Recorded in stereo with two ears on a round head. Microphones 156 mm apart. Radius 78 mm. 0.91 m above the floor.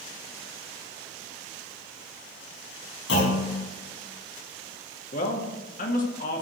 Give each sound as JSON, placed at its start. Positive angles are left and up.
{"t": 3.1, "sound": "a clunk", "side_deg": 80, "distance_m": 6.0}
{"t": 5.1, "sound": "a man speaking", "side_deg": 50, "distance_m": 2.0}